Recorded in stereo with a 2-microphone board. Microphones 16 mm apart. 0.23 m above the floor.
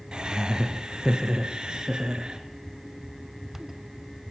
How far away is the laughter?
About 3 m.